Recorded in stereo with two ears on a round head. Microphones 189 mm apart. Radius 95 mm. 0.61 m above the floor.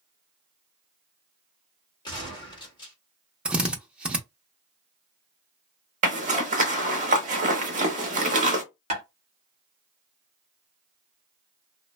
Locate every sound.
2.0 s a gunshot: 20° left (ahead or behind), 1.3 m
3.5 s a drill: 5° right (ahead or behind), 0.5 m
6.0 s a zipper: 35° right (ahead or behind), 0.7 m
8.9 s tapping: 30° right (ahead or behind), 1.3 m